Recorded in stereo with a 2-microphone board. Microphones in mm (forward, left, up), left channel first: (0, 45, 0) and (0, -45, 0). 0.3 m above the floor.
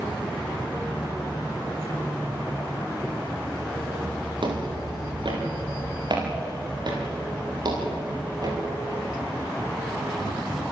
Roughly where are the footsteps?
Right.